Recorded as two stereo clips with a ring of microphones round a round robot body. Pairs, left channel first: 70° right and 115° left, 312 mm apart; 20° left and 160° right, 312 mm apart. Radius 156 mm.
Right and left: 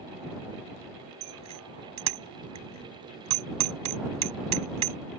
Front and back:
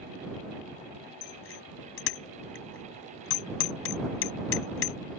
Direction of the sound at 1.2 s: 75° left.